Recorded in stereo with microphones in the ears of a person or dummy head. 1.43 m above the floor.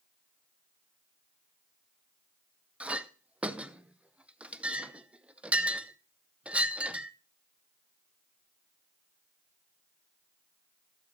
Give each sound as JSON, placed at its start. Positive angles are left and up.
{"t": 2.8, "sound": "a clink", "side_deg": -10, "distance_m": 0.6}